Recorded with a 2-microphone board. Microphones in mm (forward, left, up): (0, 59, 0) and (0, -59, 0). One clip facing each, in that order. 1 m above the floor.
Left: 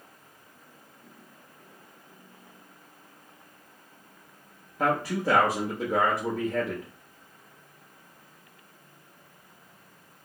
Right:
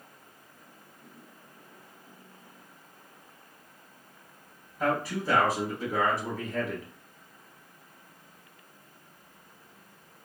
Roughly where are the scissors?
I don't hear scissors.